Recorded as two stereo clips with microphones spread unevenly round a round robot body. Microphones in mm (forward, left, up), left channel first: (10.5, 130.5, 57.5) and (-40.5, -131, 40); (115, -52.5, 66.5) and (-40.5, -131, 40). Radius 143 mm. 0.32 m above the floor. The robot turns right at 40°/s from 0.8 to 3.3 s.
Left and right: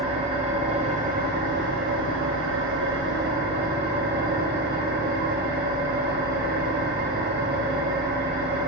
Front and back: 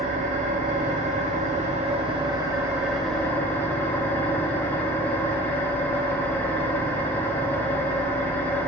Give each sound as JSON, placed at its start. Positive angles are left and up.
{"t": 0.0, "sound": "an engine running", "azimuth_deg": -160, "distance_m": 1.6}